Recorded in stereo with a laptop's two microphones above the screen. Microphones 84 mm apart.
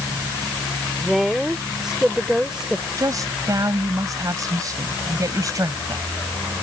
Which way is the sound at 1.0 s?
5° right (ahead or behind).